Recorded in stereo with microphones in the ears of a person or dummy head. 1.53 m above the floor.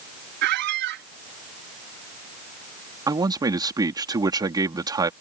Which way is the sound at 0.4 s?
55° right (ahead or behind).